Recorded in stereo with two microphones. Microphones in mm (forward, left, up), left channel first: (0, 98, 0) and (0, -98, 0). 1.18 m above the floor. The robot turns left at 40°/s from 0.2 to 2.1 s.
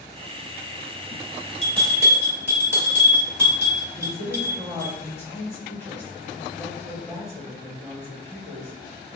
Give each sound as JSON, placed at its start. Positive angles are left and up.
{"t": 1.6, "sound": "a bell", "side_deg": -35, "distance_m": 1.7}
{"t": 3.9, "sound": "a woman speaking", "side_deg": 10, "distance_m": 2.0}